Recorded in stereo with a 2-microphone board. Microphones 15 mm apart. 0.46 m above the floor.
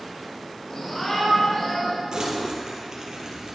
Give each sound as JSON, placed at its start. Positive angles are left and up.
{"t": 0.7, "sound": "a shout", "side_deg": 45, "distance_m": 1.8}
{"t": 2.1, "sound": "crumpling", "side_deg": -50, "distance_m": 2.5}